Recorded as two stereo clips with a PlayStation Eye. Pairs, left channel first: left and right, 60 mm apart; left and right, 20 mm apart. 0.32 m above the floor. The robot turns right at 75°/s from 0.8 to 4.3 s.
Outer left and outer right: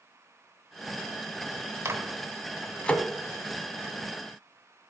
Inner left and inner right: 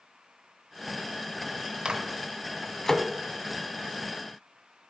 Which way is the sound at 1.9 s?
50° right (ahead or behind).